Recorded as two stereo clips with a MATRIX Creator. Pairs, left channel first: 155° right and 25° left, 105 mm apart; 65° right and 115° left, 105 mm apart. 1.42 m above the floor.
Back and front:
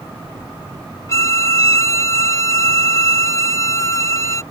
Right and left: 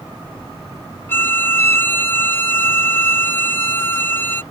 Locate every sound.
1.1 s a violin: 120° right